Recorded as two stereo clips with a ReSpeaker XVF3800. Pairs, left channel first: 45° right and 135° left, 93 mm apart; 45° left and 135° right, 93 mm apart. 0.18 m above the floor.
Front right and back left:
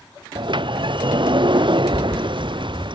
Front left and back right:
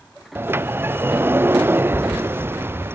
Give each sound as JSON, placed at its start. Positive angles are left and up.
{"t": 0.3, "sound": "a sliding door", "azimuth_deg": 160}